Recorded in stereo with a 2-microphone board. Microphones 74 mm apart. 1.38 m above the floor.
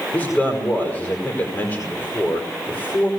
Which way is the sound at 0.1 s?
35° left (ahead or behind).